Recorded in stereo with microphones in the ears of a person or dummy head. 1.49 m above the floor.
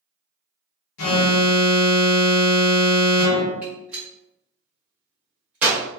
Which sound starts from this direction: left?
An alarm, at 1.0 s.